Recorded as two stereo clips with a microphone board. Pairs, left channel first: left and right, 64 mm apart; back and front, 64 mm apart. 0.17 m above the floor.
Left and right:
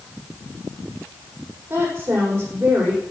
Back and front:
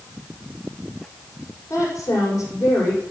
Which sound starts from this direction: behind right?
A woman speaking, at 1.7 s.